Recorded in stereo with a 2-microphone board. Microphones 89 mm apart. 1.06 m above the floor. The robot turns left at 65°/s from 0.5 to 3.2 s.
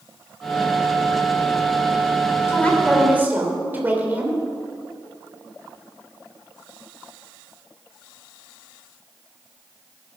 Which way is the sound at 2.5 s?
25° left.